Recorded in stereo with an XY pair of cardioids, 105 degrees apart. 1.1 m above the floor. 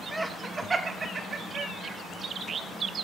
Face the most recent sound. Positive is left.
turn(degrees=-60)